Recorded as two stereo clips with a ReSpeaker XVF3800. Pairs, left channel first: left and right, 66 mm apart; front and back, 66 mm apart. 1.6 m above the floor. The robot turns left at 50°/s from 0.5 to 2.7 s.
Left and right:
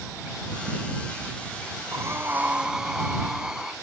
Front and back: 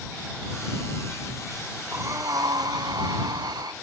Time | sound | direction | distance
1.9 | breathing | 130° right | ?